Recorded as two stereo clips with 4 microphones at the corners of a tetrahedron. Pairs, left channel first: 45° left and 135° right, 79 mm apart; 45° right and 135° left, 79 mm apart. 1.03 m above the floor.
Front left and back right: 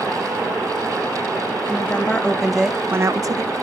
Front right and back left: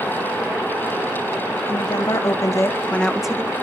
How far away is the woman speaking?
About 1.4 m.